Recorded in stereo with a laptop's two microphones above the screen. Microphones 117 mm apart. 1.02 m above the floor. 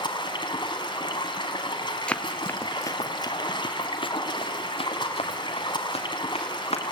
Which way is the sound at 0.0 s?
40° left (ahead or behind).